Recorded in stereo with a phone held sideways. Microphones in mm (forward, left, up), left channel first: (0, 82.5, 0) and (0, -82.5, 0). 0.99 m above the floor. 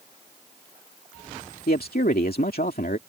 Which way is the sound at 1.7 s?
70° left (ahead or behind).